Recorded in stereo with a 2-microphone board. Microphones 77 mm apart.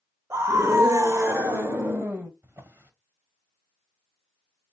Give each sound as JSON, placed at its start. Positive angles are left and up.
{"t": 0.3, "sound": "a scream", "side_deg": -35, "distance_m": 0.9}
{"t": 2.4, "sound": "a drawer", "side_deg": -30, "distance_m": 1.1}